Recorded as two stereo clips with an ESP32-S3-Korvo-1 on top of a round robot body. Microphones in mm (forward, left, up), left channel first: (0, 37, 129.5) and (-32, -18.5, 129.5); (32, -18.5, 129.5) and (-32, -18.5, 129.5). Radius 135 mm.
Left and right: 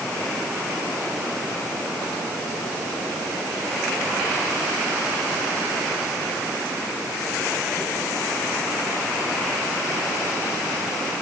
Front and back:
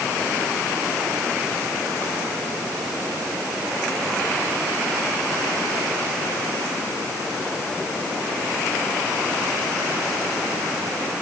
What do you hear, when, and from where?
Only background noise.